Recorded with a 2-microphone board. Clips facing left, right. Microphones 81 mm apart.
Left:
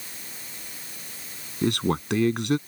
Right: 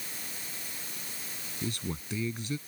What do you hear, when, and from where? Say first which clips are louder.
1.6 s a man speaking: left 13 dB; 70° left (ahead or behind)